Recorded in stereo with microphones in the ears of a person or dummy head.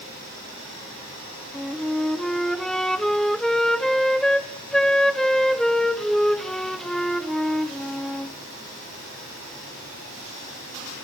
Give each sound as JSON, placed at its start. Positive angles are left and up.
{"t": 1.5, "sound": "a flute", "side_deg": 5, "distance_m": 1.1}